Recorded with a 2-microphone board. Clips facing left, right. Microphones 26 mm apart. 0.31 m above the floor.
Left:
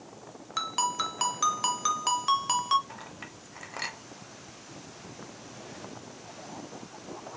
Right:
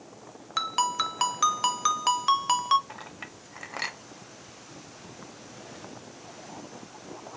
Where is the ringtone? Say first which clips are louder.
Right 3 dB; 15° right (ahead or behind), 0.5 m.